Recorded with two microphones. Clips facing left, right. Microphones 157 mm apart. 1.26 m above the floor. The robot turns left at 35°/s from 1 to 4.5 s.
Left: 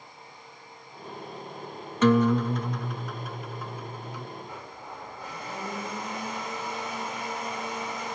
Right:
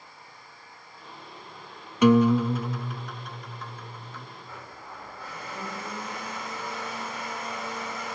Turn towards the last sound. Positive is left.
turn(degrees=20)  # may be behind; listen again after turning